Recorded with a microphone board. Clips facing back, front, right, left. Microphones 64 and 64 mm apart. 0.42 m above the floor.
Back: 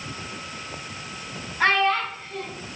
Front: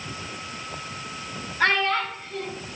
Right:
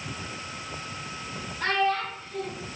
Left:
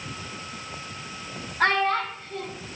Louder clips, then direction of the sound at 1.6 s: Back 2 dB, left 3 dB; 100° left.